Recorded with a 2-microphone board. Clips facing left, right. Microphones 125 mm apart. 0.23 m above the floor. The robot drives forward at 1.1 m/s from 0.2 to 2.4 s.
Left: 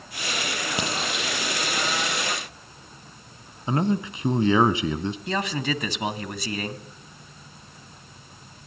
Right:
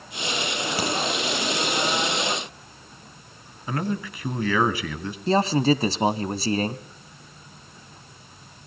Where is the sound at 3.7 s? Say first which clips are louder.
Left 4 dB; 20° left (ahead or behind), 1.4 m.